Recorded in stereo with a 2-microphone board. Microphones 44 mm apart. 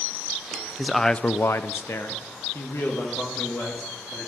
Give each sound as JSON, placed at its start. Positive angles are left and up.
{"t": 0.8, "sound": "a man speaking", "side_deg": -10, "distance_m": 0.6}